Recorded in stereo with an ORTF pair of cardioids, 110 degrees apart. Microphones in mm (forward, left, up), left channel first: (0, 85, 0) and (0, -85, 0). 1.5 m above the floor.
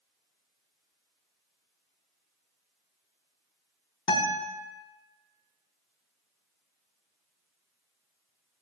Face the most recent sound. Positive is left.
turn(degrees=30)